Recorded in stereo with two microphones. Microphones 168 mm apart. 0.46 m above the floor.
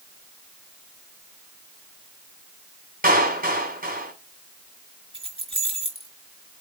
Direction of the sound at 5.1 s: 30° right (ahead or behind).